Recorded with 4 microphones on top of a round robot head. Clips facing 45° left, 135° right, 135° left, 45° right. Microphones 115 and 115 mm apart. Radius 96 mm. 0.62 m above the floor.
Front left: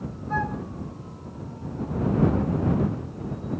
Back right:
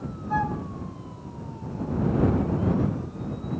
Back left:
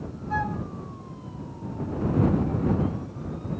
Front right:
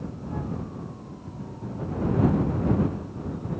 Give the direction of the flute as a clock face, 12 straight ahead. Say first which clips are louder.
Back right 2 dB, back left 6 dB; 7 o'clock.